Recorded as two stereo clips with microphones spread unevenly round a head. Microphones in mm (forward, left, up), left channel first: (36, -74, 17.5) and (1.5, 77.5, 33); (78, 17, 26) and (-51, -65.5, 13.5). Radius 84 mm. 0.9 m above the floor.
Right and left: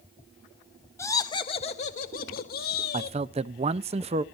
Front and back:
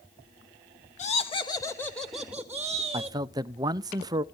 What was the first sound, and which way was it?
Laughter, 10° right.